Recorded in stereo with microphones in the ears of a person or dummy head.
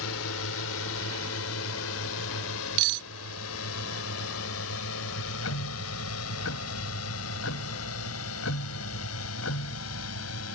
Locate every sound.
0.0 s a drone: 80° left; by 10.6 s 85° left
2.8 s cutlery clinking: 60° right (ahead or behind)
5.1 s ticking: 80° left